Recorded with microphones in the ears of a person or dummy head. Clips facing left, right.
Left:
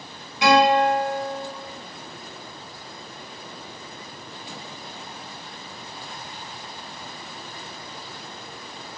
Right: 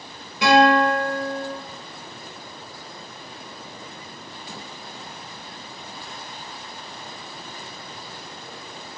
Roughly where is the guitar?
Right.